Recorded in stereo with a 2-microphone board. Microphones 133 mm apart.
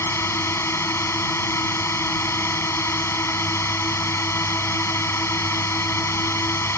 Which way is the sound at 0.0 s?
20° left (ahead or behind).